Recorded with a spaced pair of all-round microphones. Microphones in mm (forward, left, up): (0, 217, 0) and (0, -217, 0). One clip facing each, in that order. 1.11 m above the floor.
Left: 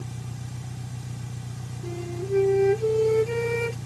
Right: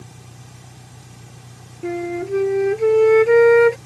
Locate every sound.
0.0 s an engine running: 30° left (ahead or behind)
1.8 s a flute: 85° right